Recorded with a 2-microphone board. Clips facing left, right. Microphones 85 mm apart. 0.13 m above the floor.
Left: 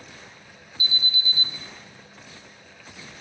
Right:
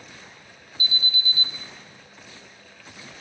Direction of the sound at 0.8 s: 20° left (ahead or behind).